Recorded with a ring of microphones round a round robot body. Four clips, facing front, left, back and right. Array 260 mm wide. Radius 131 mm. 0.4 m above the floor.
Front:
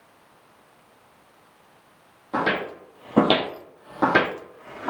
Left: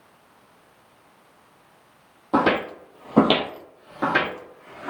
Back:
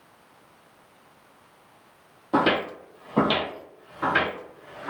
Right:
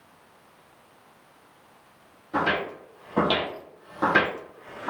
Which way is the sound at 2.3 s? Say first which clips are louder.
Left 6 dB, back 3 dB; 120° left.